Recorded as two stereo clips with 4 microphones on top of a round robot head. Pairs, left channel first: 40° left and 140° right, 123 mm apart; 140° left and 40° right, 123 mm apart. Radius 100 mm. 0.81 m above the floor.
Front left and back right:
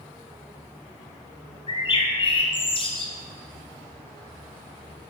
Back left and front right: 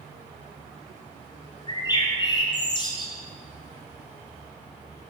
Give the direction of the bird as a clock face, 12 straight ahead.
9 o'clock.